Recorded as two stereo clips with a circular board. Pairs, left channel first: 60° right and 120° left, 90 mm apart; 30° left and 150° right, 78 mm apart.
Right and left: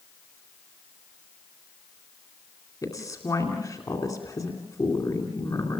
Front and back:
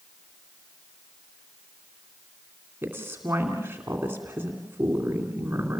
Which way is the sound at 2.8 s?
95° right.